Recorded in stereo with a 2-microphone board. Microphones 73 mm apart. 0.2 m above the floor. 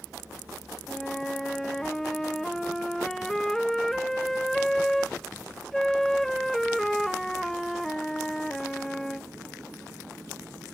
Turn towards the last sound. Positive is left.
turn(degrees=5)  # may be behind; listen again after turning